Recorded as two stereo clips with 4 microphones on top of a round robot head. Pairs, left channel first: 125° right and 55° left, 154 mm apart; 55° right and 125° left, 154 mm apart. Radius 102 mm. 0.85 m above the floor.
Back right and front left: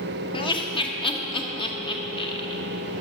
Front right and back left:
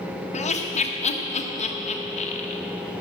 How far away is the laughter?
About 1.4 m.